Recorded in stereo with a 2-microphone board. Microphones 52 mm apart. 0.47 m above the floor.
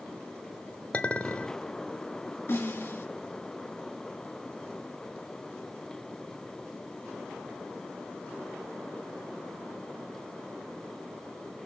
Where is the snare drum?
45° left (ahead or behind), 3.5 m.